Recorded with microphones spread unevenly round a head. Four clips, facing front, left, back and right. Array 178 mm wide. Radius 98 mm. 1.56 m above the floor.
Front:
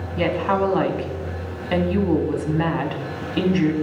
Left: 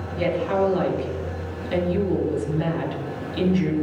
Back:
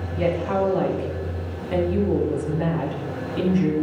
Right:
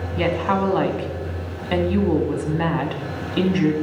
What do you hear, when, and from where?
0.2 s a woman speaking: 40° right, 3.5 m